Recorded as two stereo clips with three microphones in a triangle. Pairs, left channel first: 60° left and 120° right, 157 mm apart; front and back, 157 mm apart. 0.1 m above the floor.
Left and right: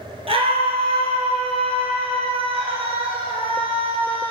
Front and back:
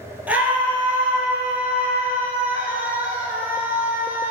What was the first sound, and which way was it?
A scream, 105° right.